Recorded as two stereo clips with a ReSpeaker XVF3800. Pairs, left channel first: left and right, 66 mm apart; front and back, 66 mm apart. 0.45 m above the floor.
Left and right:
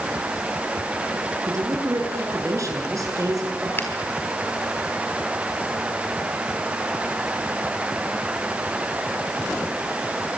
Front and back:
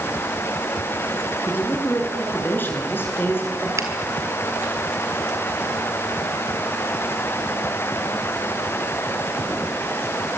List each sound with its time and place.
1.5 s a man speaking: 55° right, 7 m
3.8 s a finger snap: 145° left, 4 m